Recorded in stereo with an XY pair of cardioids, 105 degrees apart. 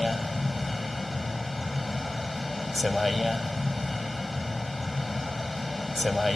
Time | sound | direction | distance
0.0 | a vehicle | 15° left | ?